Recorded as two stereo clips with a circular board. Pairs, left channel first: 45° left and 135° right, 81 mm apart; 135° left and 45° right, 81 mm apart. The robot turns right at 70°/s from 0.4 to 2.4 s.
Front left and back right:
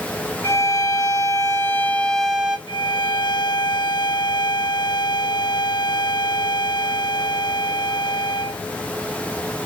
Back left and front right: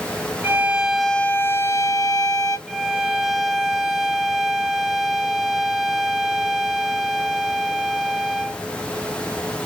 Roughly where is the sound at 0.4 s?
Ahead.